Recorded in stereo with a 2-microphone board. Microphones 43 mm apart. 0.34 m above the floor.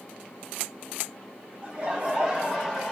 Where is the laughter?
30° right (ahead or behind), 1.3 m; by 2.9 s 5° left (ahead or behind), 1.0 m.